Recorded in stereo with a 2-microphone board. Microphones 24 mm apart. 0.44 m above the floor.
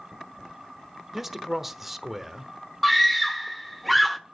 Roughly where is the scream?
Centre.